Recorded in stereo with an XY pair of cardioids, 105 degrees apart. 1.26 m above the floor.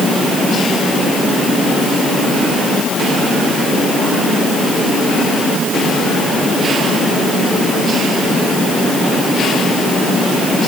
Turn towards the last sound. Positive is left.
No sound to turn to.